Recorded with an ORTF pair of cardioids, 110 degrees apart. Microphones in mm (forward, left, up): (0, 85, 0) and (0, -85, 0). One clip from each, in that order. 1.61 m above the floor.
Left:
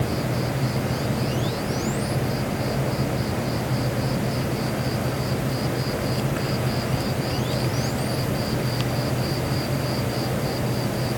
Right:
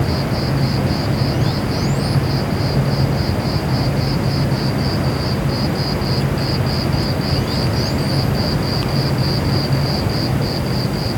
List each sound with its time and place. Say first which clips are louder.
0.0 s an insect: right 5 dB; 60° right